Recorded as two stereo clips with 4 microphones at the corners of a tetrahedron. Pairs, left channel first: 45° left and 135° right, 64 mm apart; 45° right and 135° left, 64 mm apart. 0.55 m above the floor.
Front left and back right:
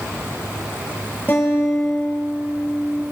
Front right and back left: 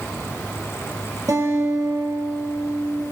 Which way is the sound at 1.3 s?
110° left.